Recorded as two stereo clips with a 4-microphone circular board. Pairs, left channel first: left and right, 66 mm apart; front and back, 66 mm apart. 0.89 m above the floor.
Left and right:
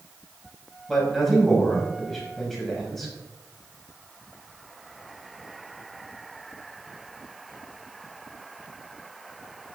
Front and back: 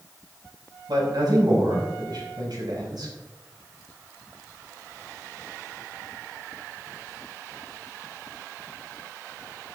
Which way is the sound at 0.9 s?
175° left.